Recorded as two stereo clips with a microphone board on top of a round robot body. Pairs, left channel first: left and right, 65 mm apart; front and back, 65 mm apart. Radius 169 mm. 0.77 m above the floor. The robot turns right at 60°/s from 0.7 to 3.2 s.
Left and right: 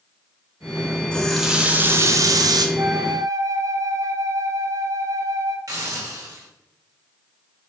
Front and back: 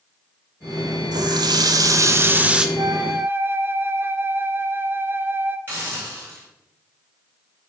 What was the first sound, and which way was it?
A running tap, 165° left.